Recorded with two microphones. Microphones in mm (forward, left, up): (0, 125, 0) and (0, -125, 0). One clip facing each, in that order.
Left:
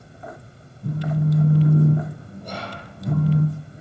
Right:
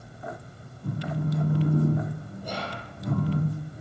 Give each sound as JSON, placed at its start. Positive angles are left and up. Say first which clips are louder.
{"t": 0.8, "sound": "a phone buzzing", "louder": "left 6 dB", "side_deg": 25, "distance_m": 0.7}
{"t": 2.4, "sound": "whispering", "louder": "left 1 dB", "side_deg": -5, "distance_m": 1.6}